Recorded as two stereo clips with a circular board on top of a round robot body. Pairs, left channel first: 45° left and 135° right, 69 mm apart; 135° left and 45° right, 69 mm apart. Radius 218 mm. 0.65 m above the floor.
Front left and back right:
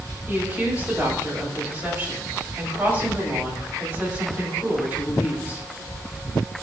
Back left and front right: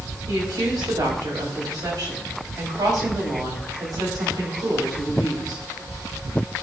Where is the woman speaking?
70° right, 3.5 m.